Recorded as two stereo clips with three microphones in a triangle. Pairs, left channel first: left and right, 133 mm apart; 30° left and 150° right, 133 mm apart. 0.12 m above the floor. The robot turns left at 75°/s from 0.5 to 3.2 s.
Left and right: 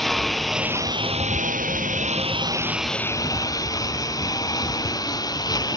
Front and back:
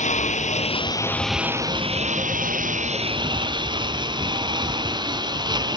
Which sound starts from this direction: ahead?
A lawn mower, at 0.0 s.